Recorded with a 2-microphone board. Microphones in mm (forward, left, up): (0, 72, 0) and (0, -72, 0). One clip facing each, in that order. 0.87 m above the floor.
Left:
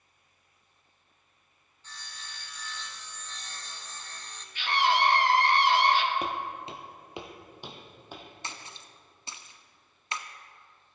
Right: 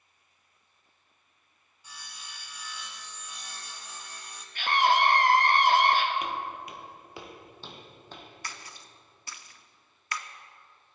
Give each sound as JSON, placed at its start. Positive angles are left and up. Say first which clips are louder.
{"t": 1.8, "sound": "sawing", "louder": "even", "side_deg": -10, "distance_m": 0.9}
{"t": 4.5, "sound": "a scream", "louder": "right 2 dB", "side_deg": -45, "distance_m": 1.2}
{"t": 6.2, "sound": "footsteps", "louder": "left 1 dB", "side_deg": 35, "distance_m": 1.0}
{"t": 8.4, "sound": "a splash", "louder": "left 1 dB", "side_deg": 20, "distance_m": 0.6}